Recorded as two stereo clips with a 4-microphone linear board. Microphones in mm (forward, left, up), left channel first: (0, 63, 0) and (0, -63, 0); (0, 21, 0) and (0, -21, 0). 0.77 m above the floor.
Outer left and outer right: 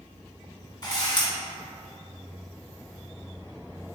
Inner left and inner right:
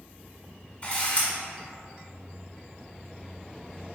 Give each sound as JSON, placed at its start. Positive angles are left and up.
{"t": 0.8, "sound": "a camera shutter", "side_deg": 35, "distance_m": 1.1}